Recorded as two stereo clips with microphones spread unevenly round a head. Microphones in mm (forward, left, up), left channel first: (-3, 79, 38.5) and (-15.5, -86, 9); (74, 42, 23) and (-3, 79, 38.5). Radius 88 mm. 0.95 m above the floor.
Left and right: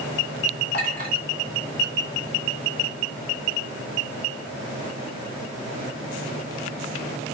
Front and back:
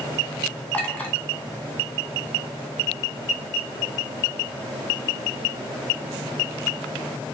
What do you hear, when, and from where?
0.7 s a clink: 45° left, 1.7 m